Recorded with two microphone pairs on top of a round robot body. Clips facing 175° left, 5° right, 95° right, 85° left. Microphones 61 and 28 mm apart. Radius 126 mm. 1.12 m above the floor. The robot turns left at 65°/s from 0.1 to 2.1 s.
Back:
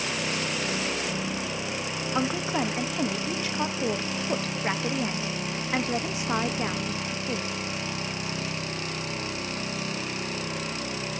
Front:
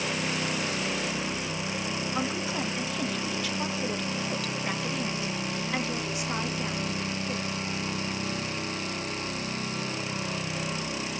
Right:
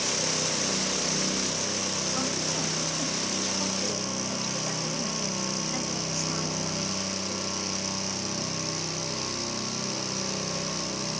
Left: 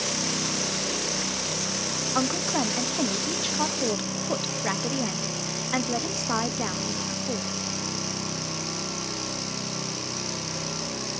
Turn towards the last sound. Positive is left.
turn(degrees=115)